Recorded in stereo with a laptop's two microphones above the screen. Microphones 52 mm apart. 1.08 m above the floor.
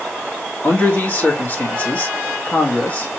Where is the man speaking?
35° left (ahead or behind), 1.4 m.